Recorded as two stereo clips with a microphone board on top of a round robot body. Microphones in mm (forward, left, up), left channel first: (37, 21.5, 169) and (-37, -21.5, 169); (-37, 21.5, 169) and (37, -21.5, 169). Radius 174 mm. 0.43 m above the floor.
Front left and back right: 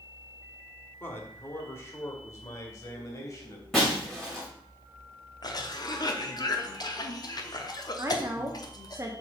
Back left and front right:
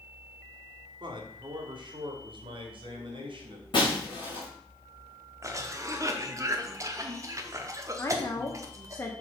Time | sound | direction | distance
1.0 | a man speaking | 35° right | 1.5 m
3.7 | breaking glass | 115° left | 3.5 m
5.4 | a cough | 10° left | 1.0 m
8.0 | a woman speaking | straight behind | 1.2 m